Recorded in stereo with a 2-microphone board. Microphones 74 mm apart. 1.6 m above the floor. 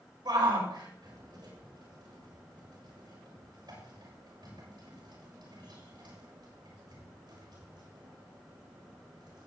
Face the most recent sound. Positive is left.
turn(degrees=-85)